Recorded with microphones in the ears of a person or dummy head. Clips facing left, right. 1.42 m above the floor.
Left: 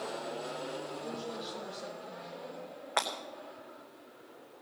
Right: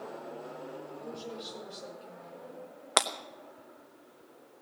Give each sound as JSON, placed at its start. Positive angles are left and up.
{"t": 1.0, "sound": "a woman speaking", "side_deg": -25, "distance_m": 5.5}
{"t": 3.0, "sound": "breaking glass", "side_deg": -45, "distance_m": 0.8}